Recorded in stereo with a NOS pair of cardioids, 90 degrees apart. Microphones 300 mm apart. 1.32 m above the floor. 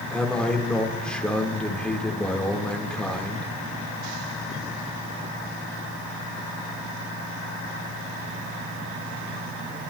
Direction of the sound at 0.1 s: 5° left.